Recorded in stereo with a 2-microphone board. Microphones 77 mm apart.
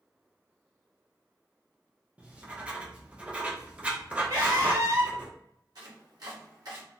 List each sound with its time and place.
2.2 s writing: 15° right (ahead or behind), 0.5 m
4.3 s a scream: 55° right (ahead or behind), 1.7 m
5.8 s chopping: 60° right (ahead or behind), 1.2 m